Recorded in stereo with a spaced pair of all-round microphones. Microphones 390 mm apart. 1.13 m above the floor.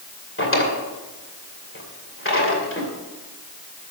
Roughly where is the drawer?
Left.